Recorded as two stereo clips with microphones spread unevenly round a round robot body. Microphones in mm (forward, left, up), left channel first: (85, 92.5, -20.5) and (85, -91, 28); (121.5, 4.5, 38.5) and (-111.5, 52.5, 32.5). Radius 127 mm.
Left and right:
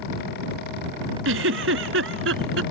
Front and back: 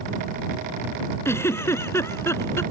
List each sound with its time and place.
1.2 s a giggle: 90° right